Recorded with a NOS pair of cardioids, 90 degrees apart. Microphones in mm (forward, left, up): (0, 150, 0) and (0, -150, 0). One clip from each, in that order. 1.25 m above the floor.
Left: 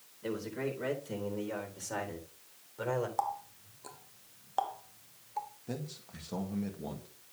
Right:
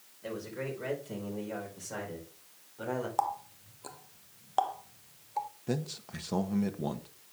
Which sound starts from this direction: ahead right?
A man speaking, at 5.7 s.